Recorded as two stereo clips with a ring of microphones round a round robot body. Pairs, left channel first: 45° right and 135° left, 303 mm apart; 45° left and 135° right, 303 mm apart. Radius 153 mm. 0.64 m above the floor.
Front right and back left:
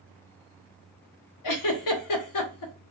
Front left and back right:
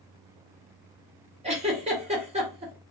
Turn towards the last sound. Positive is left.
turn(degrees=-65)